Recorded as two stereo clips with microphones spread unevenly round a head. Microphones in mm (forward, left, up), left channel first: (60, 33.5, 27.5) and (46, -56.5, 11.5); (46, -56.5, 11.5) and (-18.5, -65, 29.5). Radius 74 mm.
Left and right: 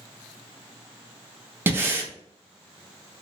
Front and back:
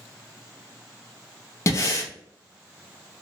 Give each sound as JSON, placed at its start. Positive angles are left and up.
{"t": 1.7, "sound": "breathing", "azimuth_deg": -30, "distance_m": 0.7}